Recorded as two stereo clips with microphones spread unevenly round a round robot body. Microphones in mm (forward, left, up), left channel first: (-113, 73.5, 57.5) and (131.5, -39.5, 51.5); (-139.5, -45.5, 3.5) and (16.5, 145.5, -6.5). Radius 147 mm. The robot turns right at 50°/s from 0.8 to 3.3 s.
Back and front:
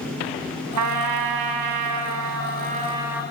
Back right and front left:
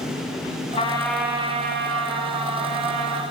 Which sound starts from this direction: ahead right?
A trumpet, at 0.8 s.